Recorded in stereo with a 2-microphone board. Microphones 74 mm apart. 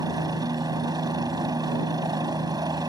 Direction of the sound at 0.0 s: 60° right (ahead or behind).